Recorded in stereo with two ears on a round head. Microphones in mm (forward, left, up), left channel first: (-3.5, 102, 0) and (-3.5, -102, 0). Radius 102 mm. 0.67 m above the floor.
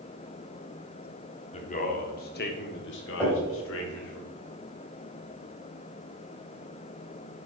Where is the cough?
I don't hear a cough.